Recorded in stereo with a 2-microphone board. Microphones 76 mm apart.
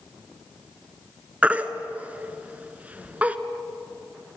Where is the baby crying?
20° right (ahead or behind), 1.3 m.